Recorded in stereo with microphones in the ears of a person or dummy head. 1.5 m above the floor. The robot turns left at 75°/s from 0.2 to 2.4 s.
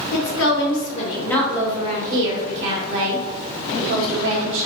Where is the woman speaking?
95° left, 1.7 m; by 4.7 s 70° right, 1.7 m.